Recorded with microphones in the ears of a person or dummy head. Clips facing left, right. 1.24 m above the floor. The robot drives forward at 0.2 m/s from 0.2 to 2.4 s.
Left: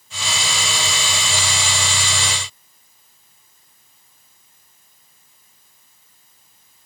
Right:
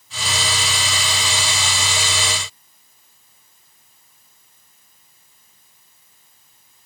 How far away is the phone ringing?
No phone ringing in this recording.